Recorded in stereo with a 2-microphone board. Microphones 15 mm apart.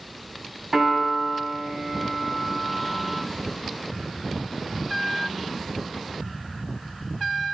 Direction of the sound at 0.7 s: 40° right (ahead or behind).